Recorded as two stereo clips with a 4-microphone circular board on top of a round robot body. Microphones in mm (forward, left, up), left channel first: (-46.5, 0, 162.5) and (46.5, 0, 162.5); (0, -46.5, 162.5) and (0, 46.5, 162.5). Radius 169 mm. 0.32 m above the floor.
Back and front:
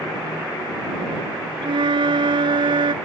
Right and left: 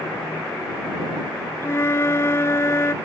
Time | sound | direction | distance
1.6 | a flute | 30° right | ?